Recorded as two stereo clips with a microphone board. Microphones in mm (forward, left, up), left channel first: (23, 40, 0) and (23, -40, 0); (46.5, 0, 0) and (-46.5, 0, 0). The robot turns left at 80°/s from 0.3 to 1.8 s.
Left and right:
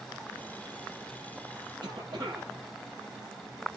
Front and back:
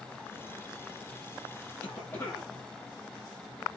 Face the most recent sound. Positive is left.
turn(degrees=-70)